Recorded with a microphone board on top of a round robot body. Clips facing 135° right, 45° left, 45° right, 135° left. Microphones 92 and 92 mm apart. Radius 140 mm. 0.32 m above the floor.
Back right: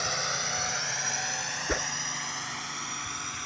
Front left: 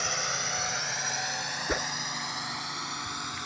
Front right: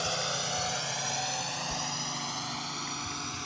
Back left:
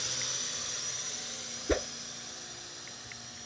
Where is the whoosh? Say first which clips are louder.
Even, back left 6 dB; 135° left.